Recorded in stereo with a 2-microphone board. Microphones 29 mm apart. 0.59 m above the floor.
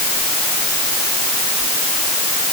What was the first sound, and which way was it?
Only background noise.